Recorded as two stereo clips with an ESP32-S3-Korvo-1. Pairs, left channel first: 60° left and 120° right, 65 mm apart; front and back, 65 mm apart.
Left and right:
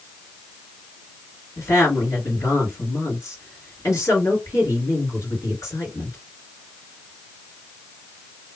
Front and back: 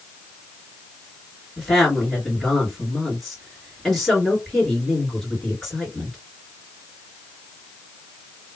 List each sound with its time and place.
1.6 s a woman speaking: 85° left, 2 m